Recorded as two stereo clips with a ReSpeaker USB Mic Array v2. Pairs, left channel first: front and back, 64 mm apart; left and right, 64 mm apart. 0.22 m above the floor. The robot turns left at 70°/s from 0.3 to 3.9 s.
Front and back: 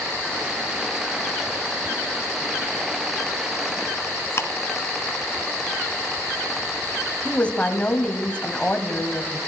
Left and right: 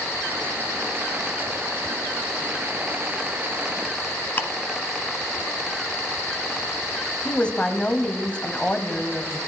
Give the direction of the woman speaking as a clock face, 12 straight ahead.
11 o'clock.